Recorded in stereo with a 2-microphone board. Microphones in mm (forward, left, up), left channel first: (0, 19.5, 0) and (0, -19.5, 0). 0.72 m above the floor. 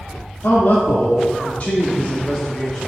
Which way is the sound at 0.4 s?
65° left (ahead or behind).